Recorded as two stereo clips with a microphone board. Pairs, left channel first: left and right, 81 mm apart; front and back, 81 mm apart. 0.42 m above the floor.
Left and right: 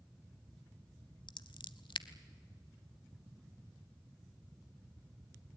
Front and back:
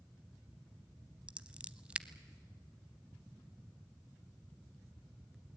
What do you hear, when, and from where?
1.3 s scissors: 105° left, 0.7 m